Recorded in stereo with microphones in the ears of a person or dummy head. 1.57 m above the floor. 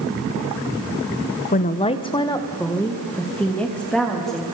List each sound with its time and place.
1.5 s a woman speaking: 40° left (ahead or behind), 0.9 m; by 4.4 s centre (ahead or behind), 3 m